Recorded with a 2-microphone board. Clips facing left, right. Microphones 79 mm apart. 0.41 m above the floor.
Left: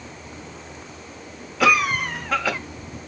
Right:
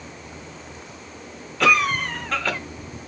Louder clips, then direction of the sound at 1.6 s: Even; 5° left (ahead or behind).